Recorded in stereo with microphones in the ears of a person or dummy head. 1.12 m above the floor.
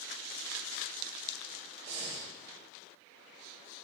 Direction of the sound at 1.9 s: 40° right (ahead or behind).